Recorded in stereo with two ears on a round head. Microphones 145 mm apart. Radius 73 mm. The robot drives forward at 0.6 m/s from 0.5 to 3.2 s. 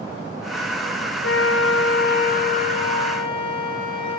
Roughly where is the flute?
Left.